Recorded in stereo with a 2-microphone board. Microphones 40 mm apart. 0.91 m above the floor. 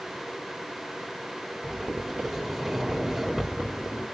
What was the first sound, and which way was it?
A sliding door, centre (ahead or behind).